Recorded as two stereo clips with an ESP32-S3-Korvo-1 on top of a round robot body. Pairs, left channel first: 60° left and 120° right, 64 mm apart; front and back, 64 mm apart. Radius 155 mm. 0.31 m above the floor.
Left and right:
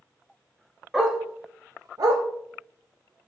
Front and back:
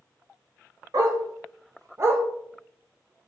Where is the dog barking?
155° left, 0.7 m; by 2.2 s 125° right, 0.6 m.